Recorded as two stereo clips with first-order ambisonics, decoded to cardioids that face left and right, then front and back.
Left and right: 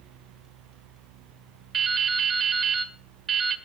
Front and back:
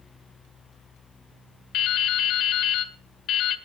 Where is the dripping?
25° right, 1.4 m.